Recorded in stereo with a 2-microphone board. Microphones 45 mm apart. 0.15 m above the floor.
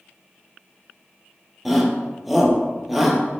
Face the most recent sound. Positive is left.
turn(degrees=0)  # may be behind; listen again after turning